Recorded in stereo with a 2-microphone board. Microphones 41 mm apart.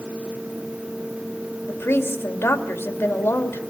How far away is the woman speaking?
About 2.5 m.